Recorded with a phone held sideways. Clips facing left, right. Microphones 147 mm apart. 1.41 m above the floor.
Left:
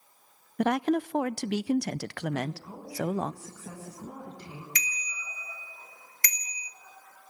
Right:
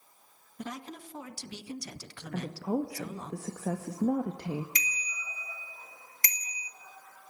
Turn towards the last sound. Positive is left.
turn(degrees=-25)  # may be behind; listen again after turning